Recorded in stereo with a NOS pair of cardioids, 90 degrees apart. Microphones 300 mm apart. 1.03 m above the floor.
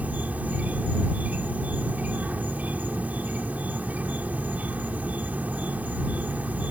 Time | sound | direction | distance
0.0 | an insect | 5° right | ?